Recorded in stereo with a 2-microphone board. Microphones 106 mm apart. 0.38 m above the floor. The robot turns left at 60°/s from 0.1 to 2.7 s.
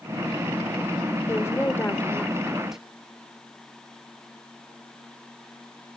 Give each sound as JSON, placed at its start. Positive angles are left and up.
{"t": 1.3, "sound": "a woman speaking", "side_deg": 25, "distance_m": 1.2}